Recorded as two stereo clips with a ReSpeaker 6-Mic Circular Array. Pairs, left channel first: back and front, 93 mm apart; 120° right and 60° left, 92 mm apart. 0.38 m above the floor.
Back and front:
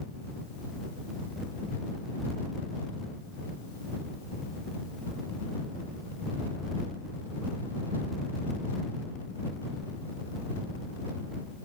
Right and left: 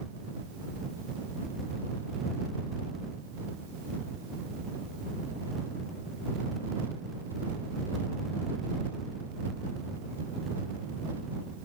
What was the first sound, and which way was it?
Only background noise.